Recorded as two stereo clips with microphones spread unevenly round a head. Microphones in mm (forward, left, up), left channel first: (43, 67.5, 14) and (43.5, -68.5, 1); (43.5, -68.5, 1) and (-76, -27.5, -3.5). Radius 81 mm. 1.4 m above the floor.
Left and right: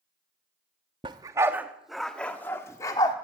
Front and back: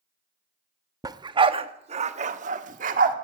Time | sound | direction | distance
1.0 | a dog barking | 145° right | 1.0 m